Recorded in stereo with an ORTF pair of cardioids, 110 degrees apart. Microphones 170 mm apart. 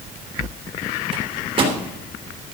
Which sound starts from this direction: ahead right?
A microwave, at 1.1 s.